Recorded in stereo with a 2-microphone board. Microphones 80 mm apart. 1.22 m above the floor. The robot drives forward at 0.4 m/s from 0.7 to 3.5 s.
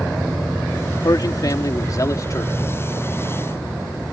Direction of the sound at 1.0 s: 55° left (ahead or behind).